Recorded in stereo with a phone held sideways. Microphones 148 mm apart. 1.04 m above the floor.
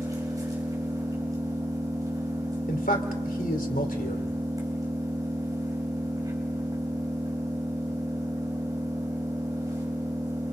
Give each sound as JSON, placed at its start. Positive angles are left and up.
{"t": 0.0, "sound": "an engine running", "side_deg": -25, "distance_m": 6.0}
{"t": 2.7, "sound": "a man speaking", "side_deg": 75, "distance_m": 3.5}